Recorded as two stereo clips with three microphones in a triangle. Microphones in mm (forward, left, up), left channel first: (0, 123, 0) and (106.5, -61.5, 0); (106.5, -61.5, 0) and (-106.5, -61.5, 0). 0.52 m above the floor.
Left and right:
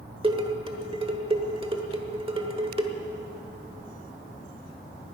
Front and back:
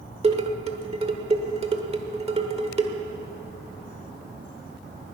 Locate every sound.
0.2 s dishes clattering: 120° right, 1.2 m